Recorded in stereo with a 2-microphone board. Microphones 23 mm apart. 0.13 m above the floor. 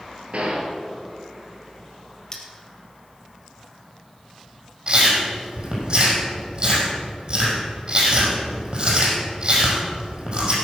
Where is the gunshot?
60° right (ahead or behind), 2 m.